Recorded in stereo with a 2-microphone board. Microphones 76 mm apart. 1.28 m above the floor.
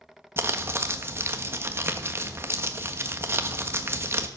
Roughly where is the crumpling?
Right.